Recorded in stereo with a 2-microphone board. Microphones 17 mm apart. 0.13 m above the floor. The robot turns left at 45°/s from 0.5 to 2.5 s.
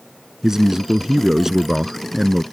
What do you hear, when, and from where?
0.4 s a man speaking: 90° right; by 2.4 s straight behind